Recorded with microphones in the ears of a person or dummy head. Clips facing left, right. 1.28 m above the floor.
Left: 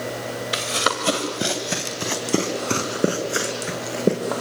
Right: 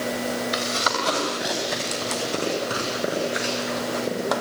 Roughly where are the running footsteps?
Left.